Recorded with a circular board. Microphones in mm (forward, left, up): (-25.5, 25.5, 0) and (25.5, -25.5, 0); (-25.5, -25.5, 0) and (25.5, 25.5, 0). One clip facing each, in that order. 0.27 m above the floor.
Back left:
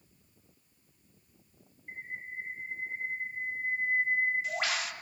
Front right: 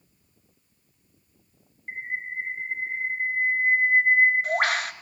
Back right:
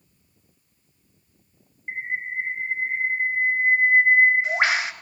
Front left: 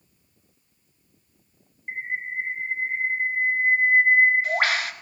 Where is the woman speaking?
I don't hear a woman speaking.